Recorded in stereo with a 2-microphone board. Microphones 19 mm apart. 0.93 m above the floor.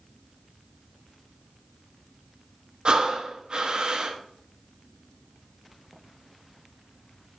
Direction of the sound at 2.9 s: 50° right (ahead or behind).